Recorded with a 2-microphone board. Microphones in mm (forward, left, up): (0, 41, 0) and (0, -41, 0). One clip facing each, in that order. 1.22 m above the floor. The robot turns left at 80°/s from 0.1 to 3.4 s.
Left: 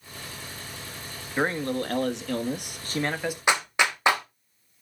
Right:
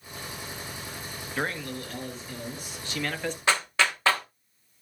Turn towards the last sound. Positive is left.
turn(degrees=20)  # may be behind; listen again after turning